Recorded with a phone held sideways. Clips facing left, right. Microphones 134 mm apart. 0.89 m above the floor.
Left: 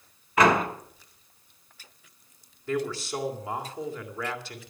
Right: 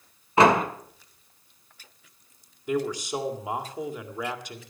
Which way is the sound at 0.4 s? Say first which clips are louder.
Right 2 dB; 30° right (ahead or behind).